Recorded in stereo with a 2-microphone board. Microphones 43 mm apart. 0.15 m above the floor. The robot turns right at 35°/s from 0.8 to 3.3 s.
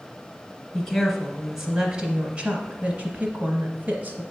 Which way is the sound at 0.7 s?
Centre (ahead or behind).